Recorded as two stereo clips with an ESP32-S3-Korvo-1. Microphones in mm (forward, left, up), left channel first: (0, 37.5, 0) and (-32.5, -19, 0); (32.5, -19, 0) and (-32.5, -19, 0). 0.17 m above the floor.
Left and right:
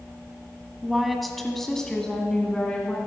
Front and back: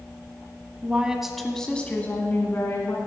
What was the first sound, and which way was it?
A woman speaking, 160° left.